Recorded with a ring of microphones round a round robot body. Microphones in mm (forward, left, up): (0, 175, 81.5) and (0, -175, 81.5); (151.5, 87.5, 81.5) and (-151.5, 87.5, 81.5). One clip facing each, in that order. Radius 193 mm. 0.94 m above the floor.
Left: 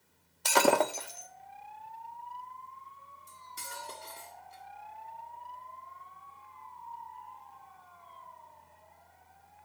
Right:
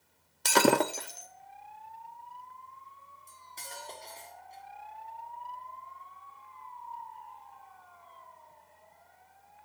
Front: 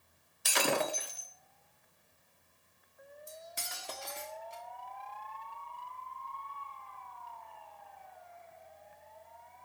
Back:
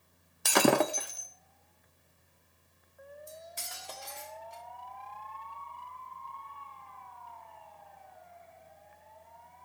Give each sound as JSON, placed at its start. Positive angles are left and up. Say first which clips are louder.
{"t": 0.5, "sound": "breaking glass", "louder": "right 2 dB, back 8 dB", "azimuth_deg": -150, "distance_m": 0.5}
{"t": 3.3, "sound": "cutlery clinking", "louder": "even, back 1 dB", "azimuth_deg": 15, "distance_m": 1.6}